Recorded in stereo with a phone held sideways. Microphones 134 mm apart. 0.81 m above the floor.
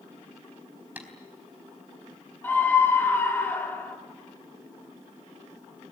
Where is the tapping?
10° right (ahead or behind), 4 m.